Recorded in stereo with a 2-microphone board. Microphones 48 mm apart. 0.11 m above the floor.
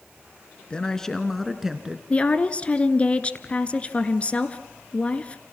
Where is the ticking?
I don't hear ticking.